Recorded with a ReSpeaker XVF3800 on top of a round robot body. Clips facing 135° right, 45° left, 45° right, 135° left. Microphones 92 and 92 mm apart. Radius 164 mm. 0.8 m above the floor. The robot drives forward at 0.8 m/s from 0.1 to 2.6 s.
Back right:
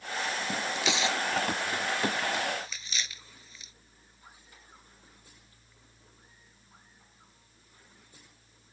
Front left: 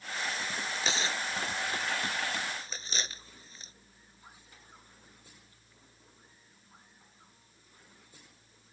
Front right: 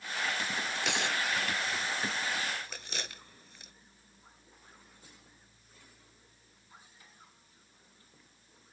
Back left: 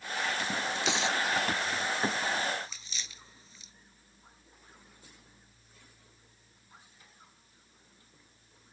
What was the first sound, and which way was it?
Tearing paper, 10° right.